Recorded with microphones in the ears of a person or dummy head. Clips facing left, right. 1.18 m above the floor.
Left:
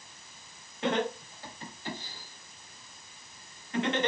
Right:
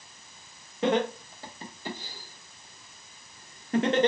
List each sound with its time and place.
0.8 s laughter: 70° right (ahead or behind), 2.5 m; by 4.1 s 30° right (ahead or behind), 1.4 m